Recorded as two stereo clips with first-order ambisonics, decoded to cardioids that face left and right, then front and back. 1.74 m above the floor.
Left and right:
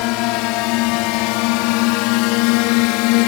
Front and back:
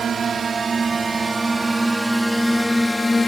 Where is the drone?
115° left; by 3.3 s 80° left.